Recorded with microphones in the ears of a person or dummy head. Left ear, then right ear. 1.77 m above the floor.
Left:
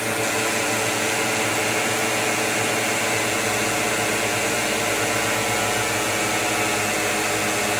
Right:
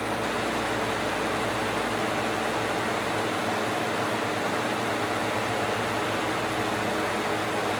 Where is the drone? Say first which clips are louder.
Left 5 dB; 55° left (ahead or behind).